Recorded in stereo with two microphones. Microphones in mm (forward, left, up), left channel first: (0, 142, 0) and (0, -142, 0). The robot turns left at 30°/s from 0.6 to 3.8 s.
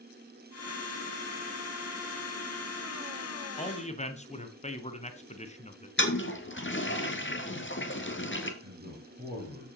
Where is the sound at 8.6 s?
35° right (ahead or behind), 5.5 m.